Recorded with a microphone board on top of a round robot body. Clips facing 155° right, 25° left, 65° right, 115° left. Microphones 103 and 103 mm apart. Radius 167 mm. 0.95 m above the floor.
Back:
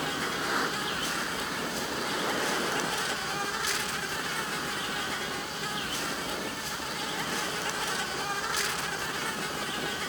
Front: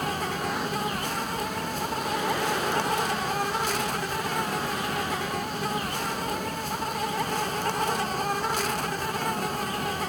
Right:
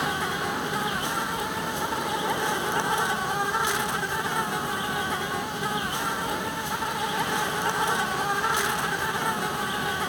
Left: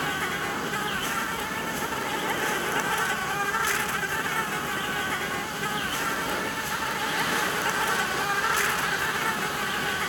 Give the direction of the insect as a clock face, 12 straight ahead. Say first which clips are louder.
Front 3 dB, right 2 dB; 12 o'clock.